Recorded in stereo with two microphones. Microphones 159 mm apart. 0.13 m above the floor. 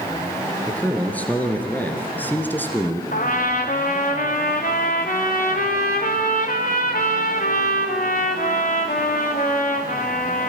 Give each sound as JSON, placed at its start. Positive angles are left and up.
{"t": 0.7, "sound": "a man speaking", "side_deg": 10, "distance_m": 3.0}
{"t": 3.1, "sound": "a trumpet", "side_deg": 60, "distance_m": 3.0}